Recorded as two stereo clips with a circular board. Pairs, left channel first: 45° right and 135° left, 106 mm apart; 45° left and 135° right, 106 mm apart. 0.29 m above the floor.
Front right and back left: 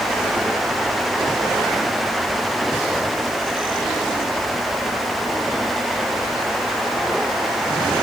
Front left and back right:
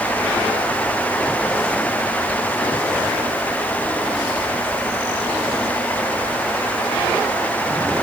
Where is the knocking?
I don't hear knocking.